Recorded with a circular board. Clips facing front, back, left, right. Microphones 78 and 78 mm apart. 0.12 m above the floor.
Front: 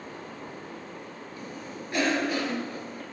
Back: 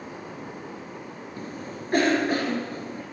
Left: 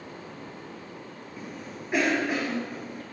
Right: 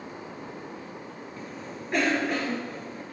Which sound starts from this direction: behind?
A cough, at 1.4 s.